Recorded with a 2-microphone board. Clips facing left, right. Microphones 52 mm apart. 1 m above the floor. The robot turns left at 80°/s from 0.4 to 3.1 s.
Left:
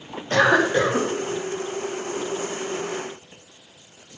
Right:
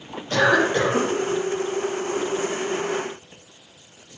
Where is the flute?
No flute in this recording.